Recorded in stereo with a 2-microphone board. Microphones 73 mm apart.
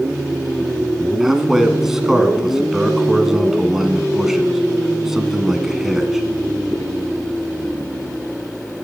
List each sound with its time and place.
1.2 s a man speaking: 5° right (ahead or behind), 1.7 m